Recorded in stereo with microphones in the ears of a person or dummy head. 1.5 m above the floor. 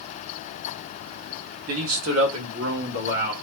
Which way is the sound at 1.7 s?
75° right (ahead or behind).